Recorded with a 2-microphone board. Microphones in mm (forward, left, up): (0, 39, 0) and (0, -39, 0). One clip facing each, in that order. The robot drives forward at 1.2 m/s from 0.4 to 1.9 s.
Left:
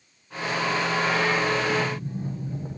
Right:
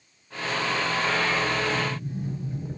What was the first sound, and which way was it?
A sliding door, 35° left (ahead or behind).